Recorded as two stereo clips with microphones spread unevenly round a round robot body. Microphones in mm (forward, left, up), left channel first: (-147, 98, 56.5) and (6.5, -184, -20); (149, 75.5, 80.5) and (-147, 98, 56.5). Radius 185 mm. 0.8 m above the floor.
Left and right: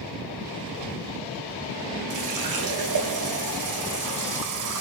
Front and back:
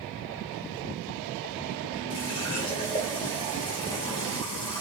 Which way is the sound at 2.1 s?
80° right.